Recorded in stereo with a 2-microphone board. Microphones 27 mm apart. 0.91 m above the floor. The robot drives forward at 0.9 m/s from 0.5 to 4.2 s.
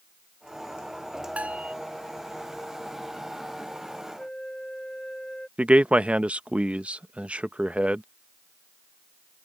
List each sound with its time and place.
1.4 s a bell: 55° right (ahead or behind)
4.2 s a flute: 35° left (ahead or behind)
5.6 s a man speaking: 50° right (ahead or behind)